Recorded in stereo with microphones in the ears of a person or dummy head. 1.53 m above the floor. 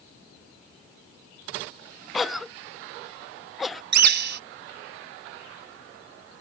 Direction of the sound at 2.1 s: 5° right (ahead or behind).